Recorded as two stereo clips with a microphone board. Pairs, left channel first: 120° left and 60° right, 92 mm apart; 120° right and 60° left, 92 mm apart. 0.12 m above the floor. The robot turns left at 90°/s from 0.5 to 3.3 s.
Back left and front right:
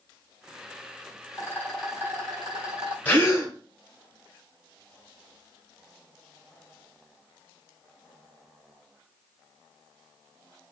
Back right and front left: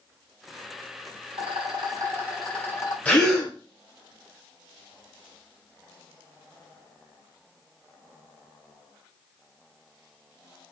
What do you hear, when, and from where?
1.3 s a rattle: 70° left, 1.3 m; by 3.0 s 75° right, 1.3 m
3.0 s a gasp: straight behind, 1.4 m; by 3.5 s 155° left, 1.4 m